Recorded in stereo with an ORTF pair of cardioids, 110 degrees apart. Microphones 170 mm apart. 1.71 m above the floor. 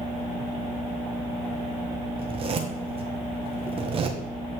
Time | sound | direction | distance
2.2 | a zipper | 35° right | 1.4 m